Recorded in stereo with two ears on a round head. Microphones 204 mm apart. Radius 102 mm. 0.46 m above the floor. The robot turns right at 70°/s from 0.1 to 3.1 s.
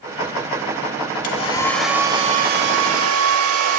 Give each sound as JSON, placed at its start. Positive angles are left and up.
{"t": 1.2, "sound": "a hair dryer", "azimuth_deg": 140, "distance_m": 1.1}